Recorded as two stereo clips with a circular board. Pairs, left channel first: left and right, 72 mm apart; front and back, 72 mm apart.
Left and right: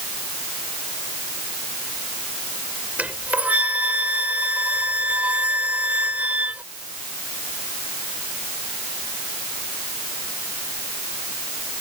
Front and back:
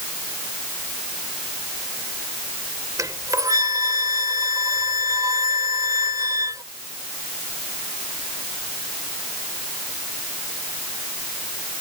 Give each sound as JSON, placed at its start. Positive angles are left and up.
{"t": 3.0, "sound": "a flute", "azimuth_deg": -155}